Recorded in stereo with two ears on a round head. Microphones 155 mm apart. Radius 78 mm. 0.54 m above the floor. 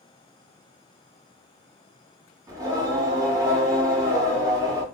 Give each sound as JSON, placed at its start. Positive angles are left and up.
{"t": 2.5, "sound": "singing", "side_deg": -20, "distance_m": 1.7}